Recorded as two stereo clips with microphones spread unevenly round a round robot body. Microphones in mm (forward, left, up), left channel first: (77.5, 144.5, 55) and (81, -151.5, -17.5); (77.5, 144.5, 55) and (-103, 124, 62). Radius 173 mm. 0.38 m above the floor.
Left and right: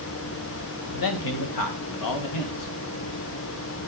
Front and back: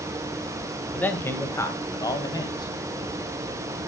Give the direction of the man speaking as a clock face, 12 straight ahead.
9 o'clock.